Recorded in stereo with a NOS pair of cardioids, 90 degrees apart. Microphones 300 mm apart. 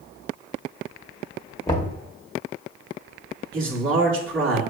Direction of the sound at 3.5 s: 45° right.